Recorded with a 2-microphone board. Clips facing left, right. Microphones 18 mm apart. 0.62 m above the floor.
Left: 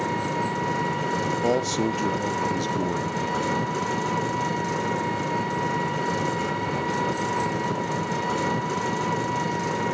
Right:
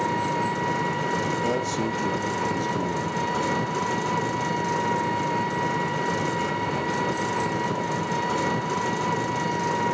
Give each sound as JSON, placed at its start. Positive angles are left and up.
{"t": 0.0, "sound": "an engine running", "side_deg": -5, "distance_m": 0.9}
{"t": 1.4, "sound": "a man speaking", "side_deg": 25, "distance_m": 0.8}